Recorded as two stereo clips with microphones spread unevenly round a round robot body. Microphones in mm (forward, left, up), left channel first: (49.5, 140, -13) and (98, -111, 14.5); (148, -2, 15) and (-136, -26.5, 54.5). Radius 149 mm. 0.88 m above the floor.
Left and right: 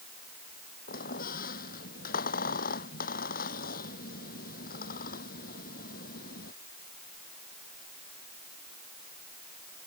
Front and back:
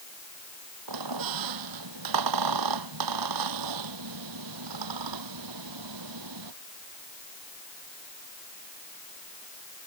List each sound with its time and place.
0.9 s a squeak: 165° left